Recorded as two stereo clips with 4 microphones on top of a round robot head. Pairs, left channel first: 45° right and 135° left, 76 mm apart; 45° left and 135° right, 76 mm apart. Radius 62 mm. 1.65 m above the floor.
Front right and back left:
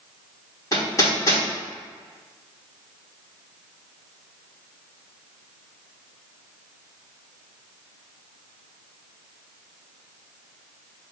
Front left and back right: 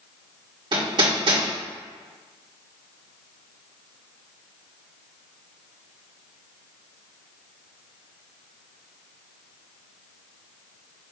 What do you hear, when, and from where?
0.7 s hammering: 100° right, 2 m